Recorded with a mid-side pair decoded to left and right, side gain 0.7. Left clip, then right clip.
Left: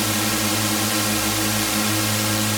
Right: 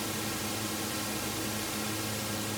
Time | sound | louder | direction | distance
0.0 | a drone | left 13 dB | 55° left | ?